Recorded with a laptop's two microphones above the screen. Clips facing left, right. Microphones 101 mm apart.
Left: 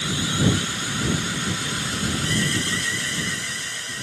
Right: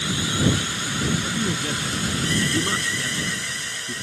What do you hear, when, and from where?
1.2 s a man speaking: 55° right (ahead or behind)